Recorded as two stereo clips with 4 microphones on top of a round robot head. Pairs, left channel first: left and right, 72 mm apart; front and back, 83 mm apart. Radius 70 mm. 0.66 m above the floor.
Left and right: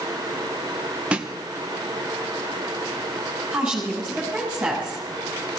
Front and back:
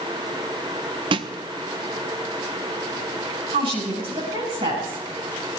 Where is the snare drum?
165° right, 0.7 m.